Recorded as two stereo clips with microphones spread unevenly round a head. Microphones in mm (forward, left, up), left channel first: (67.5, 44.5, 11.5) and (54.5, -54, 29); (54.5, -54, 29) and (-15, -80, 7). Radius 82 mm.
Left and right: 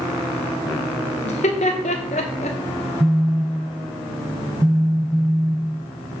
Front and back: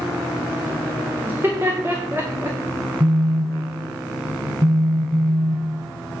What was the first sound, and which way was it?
Laughter, 120° left.